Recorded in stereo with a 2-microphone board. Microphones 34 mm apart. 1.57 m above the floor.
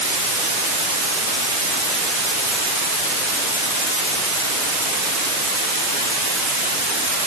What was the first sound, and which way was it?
Only background noise.